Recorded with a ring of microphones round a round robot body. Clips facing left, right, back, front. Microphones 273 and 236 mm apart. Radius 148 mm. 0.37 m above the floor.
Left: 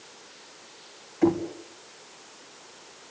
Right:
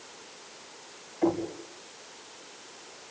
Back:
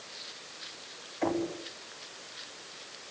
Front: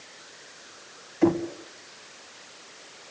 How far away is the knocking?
About 2.5 m.